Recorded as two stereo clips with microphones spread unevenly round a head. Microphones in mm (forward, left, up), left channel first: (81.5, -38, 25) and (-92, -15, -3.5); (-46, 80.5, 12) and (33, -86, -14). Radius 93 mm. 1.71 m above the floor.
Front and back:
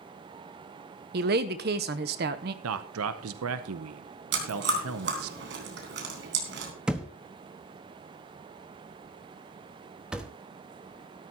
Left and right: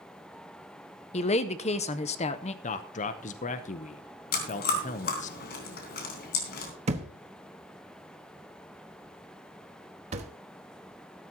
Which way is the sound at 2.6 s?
160° left.